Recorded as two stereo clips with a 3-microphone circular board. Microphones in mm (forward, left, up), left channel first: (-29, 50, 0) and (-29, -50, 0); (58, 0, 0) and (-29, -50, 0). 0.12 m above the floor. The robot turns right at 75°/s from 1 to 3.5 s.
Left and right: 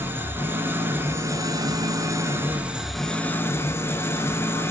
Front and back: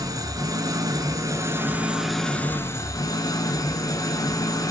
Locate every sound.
0.0 s an engine running: 145° right, 0.8 m; by 4.7 s 45° left, 0.8 m